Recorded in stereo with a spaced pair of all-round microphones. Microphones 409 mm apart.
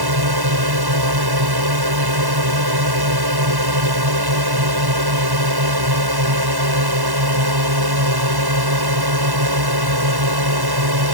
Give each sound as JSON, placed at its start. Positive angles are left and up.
{"t": 0.0, "sound": "a drone", "side_deg": -65}